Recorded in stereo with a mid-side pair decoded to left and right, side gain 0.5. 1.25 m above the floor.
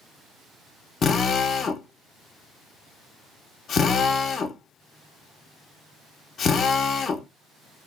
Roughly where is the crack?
I don't hear a crack.